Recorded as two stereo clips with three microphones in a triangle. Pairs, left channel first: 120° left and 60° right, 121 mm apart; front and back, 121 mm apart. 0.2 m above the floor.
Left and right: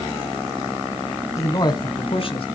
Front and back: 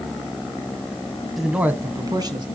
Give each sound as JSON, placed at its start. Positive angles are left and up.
{"t": 1.4, "sound": "a man speaking", "azimuth_deg": 90, "distance_m": 1.2}